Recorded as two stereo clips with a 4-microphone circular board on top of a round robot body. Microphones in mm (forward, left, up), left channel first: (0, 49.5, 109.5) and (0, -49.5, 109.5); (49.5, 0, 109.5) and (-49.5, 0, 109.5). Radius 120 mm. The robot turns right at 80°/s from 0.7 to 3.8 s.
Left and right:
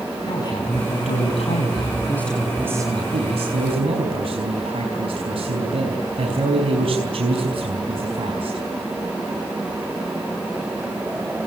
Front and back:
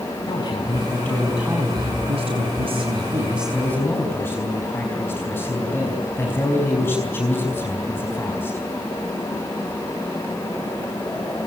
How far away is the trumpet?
No trumpet in this recording.